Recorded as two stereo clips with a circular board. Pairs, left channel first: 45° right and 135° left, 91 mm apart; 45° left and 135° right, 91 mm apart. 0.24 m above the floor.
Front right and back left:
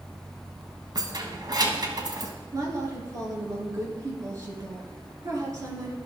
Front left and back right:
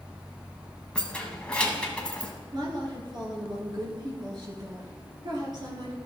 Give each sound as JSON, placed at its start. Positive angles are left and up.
{"t": 0.9, "sound": "keys jangling", "azimuth_deg": 120, "distance_m": 1.3}
{"t": 2.5, "sound": "a woman speaking", "azimuth_deg": -170, "distance_m": 3.0}